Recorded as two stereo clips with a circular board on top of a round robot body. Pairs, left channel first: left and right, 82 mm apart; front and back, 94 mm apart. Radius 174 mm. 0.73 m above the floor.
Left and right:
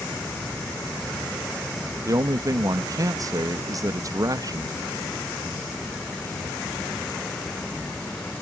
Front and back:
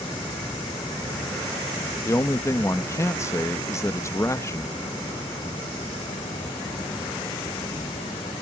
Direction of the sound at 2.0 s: 55° right.